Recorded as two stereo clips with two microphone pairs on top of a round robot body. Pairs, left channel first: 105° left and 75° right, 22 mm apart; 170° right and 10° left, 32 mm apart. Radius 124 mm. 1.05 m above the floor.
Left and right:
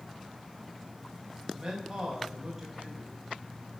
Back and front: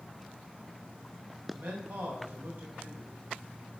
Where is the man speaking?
5° right, 5 m.